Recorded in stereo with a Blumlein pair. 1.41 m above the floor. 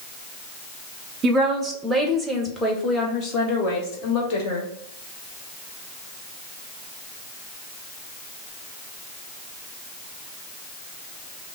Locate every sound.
1.2 s a woman speaking: 20° right, 1.3 m; by 4.7 s 45° left, 1.8 m